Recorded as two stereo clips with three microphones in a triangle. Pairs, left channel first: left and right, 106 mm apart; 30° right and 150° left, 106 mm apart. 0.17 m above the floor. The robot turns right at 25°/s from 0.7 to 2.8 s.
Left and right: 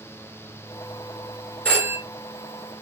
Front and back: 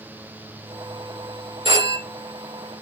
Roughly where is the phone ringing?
Behind.